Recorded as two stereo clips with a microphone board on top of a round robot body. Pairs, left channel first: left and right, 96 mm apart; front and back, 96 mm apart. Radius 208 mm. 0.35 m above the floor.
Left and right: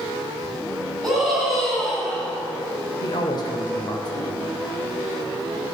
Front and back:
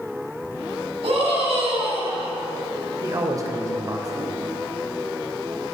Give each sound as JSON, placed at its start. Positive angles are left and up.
{"t": 1.0, "sound": "a scream", "azimuth_deg": 180, "distance_m": 6.0}
{"t": 3.0, "sound": "a man speaking", "azimuth_deg": 130, "distance_m": 2.5}